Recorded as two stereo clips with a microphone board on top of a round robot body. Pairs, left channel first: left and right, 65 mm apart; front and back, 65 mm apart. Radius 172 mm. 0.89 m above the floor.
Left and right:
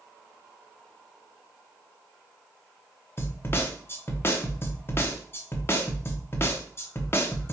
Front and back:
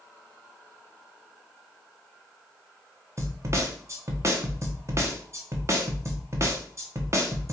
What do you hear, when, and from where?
3.2 s a snare drum: 140° left, 1.1 m